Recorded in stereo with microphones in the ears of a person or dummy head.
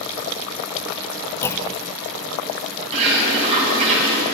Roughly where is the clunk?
Centre.